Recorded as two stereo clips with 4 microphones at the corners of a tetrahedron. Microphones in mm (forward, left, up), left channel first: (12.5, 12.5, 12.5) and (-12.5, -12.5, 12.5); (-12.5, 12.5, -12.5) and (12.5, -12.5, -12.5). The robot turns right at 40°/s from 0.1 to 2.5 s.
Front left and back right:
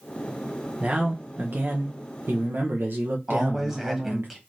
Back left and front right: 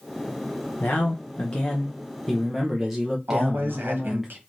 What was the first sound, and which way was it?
A man speaking, 160° left.